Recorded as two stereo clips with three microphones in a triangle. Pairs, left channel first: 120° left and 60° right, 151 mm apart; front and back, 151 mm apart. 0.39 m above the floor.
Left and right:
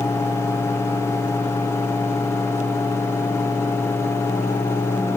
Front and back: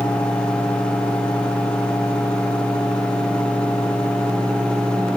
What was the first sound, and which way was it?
Only background noise.